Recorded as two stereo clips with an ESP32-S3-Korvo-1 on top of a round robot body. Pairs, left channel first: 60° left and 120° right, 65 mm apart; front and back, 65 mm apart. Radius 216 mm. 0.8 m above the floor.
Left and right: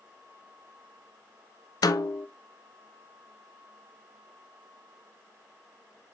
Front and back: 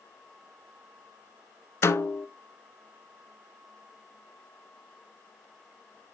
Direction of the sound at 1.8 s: 45° left.